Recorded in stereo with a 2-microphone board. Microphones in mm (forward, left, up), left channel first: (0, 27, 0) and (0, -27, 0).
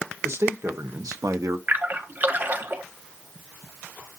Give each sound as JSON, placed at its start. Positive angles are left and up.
{"t": 0.2, "sound": "a man speaking", "side_deg": -50, "distance_m": 1.4}
{"t": 1.7, "sound": "a splash", "side_deg": -35, "distance_m": 1.5}